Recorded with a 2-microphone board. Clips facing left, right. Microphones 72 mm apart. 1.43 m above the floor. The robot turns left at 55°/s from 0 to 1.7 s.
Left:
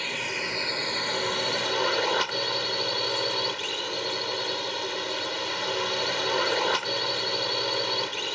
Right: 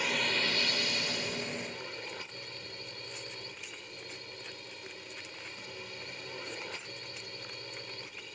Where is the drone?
175° right; by 8.4 s 95° left.